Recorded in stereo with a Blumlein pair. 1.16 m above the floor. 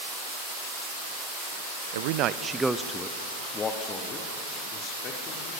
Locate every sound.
1.9 s a man speaking: 60° right, 0.6 m; by 5.6 s 30° left, 3 m